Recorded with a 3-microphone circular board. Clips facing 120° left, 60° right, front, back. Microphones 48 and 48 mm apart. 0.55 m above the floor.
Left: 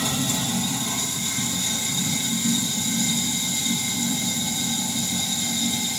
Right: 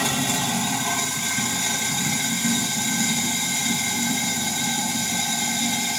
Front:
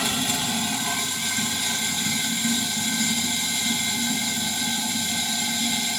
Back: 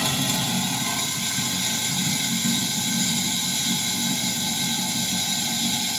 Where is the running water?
85° right, 0.8 m.